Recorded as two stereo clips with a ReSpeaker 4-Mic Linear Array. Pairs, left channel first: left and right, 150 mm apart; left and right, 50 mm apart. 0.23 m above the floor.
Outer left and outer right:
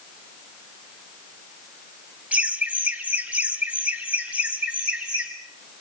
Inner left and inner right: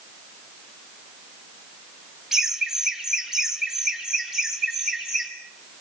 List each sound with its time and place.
2.3 s laughter: 10° right (ahead or behind), 1.7 m; by 5.3 s 5° right (ahead or behind), 2 m